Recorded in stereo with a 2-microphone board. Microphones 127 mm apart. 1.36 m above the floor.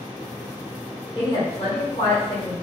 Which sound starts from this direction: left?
A woman speaking, at 1.1 s.